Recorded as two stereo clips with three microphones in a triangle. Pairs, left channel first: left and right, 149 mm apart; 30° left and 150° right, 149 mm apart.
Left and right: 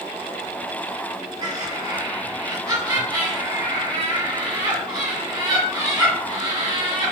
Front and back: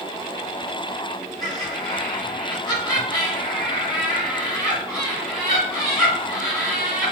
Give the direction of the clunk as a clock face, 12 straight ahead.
I don't hear a clunk.